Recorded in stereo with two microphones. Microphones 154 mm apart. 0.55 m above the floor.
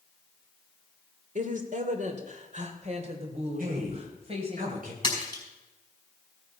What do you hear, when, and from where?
1.4 s a woman speaking: 55° right (ahead or behind), 1.9 m; by 4.6 s 40° right (ahead or behind), 3.5 m
3.6 s a man speaking: 70° right (ahead or behind), 3 m
5.0 s a splash: 30° left (ahead or behind), 5 m